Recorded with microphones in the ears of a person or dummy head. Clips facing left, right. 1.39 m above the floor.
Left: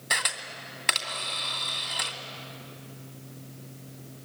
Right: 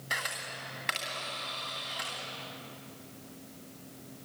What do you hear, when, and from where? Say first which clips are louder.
0.1 s a camera shutter: left 4 dB; 65° left (ahead or behind), 2.5 m